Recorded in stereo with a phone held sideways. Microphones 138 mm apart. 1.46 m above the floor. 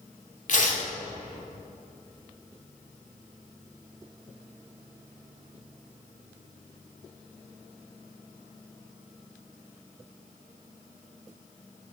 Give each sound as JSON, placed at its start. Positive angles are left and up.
{"t": 0.5, "sound": "tearing paper", "side_deg": 60, "distance_m": 1.6}